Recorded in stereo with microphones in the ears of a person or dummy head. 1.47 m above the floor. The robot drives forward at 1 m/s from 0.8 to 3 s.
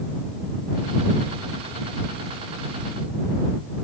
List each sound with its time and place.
Only background noise.